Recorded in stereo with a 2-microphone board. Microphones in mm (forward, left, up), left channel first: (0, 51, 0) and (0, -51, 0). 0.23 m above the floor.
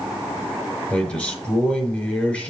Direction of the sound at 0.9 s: 10° left (ahead or behind).